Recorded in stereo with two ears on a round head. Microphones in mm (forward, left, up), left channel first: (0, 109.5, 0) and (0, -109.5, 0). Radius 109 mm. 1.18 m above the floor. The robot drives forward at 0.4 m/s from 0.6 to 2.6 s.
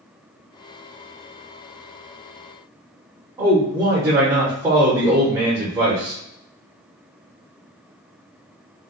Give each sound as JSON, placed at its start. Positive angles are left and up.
{"t": 3.4, "sound": "a man speaking", "side_deg": -10, "distance_m": 0.8}